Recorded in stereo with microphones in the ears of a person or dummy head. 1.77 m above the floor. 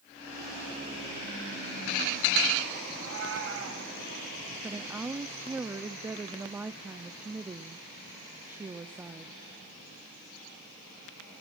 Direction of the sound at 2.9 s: 75° right (ahead or behind).